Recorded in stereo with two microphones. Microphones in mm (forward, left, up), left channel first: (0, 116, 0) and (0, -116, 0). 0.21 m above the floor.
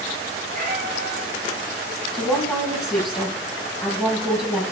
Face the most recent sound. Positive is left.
turn(degrees=-5)  # may be behind; listen again after turning